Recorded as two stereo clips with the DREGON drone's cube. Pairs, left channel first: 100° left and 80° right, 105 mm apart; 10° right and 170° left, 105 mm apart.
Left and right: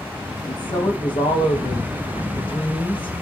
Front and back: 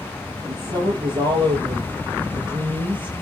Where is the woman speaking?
135° left, 4 m.